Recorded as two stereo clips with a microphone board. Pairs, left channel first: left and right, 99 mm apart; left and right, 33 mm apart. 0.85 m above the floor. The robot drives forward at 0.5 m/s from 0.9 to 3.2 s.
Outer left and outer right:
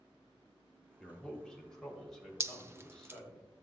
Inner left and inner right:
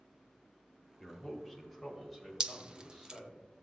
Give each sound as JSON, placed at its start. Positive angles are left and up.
{"t": 1.0, "sound": "a man speaking", "side_deg": 5, "distance_m": 2.5}
{"t": 2.4, "sound": "dripping", "side_deg": -25, "distance_m": 0.5}